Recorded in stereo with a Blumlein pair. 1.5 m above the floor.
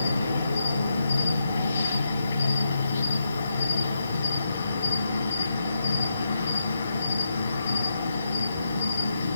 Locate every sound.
0.0 s an insect: 70° left, 8 m